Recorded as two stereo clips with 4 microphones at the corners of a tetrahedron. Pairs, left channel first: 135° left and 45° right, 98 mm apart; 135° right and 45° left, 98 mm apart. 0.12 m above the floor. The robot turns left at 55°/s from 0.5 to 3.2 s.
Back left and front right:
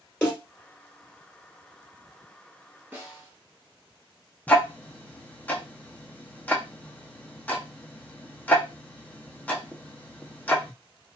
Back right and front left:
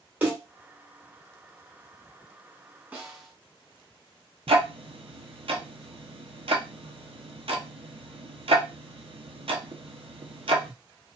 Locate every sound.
0.2 s a snare drum: 90° left, 1.8 m
2.9 s a snare drum: 10° right, 0.9 m; by 3.3 s 25° right, 0.9 m
4.5 s ticking: 60° left, 0.6 m